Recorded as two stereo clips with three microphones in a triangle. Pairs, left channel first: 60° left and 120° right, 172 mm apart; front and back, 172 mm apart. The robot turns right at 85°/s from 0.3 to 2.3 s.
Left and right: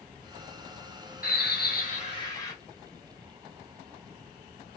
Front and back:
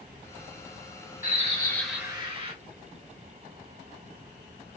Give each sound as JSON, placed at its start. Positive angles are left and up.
{"t": 1.2, "sound": "a bird", "azimuth_deg": 35, "distance_m": 1.4}